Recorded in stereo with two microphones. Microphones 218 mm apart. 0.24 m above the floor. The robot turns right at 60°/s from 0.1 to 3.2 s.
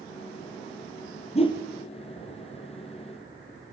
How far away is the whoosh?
About 2.5 m.